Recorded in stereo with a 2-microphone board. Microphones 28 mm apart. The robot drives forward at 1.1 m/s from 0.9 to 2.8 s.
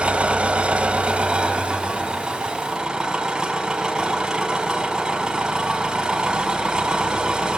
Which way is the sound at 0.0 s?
50° right (ahead or behind).